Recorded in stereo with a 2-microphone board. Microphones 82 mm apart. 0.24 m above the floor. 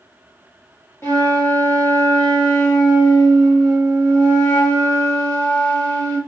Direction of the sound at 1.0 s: 30° left (ahead or behind).